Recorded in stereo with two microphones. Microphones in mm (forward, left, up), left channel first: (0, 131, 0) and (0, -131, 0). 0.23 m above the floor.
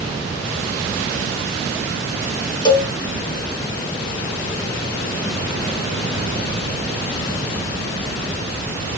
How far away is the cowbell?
About 0.8 m.